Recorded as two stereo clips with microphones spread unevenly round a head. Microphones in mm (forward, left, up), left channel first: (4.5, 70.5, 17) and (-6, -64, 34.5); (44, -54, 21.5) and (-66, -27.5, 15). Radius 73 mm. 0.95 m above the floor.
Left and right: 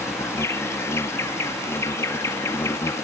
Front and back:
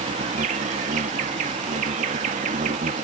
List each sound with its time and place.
0.0 s an insect: 155° left